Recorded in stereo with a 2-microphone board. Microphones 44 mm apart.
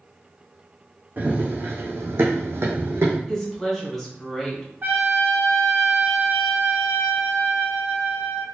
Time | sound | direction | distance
1.2 | running footsteps | 40° right (ahead or behind) | 1.1 m
3.3 | a woman speaking | 5° left (ahead or behind) | 1.5 m
4.8 | a trumpet | 50° right (ahead or behind) | 1.0 m